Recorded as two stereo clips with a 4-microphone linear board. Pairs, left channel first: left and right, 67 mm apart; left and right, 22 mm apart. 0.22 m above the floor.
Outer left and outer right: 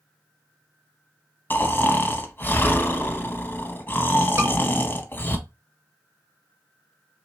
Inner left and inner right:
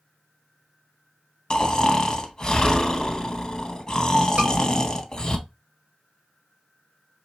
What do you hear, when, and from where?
1.5 s snoring: 30° left (ahead or behind), 0.6 m
4.4 s a scream: 40° right (ahead or behind), 3 m